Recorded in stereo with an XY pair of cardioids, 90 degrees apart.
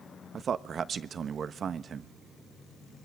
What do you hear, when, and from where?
0.3 s a man speaking: 60° right, 1.2 m